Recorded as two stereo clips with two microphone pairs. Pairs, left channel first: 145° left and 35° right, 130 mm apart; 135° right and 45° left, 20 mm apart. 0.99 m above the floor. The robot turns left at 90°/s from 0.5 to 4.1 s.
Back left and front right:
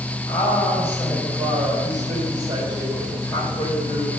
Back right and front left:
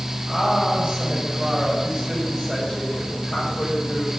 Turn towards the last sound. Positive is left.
turn(degrees=145)